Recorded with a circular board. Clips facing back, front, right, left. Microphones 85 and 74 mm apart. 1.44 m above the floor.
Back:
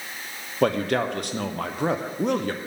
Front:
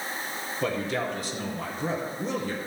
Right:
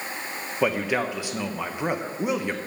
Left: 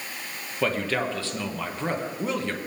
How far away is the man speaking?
About 0.8 m.